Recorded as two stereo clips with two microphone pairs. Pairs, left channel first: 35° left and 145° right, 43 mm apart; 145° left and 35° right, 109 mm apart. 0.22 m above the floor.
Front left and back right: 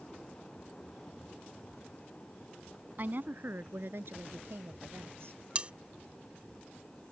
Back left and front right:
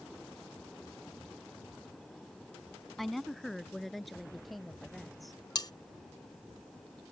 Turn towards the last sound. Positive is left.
turn(degrees=165)